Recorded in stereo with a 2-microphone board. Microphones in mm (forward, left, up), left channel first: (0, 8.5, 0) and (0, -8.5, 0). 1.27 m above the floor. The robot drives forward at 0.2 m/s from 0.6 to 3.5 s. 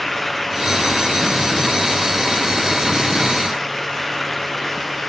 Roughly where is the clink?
I don't hear a clink.